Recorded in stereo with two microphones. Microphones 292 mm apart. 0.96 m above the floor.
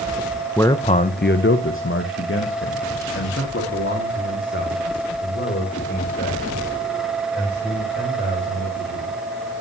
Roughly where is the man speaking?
Centre.